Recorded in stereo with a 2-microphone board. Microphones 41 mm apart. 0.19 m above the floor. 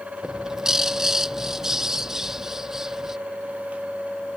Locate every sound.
0.2 s a bird: 10° right (ahead or behind)